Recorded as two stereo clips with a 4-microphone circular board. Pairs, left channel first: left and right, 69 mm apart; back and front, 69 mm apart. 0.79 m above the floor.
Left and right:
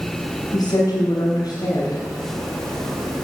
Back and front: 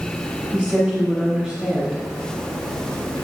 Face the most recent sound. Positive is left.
turn(degrees=85)